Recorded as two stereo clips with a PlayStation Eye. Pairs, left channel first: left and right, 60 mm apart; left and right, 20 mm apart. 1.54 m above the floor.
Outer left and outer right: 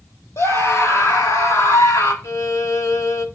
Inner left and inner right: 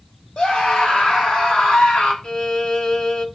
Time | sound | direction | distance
0.4 | a scream | 50° left (ahead or behind) | 4 m
2.2 | a violin | 55° left (ahead or behind) | 0.8 m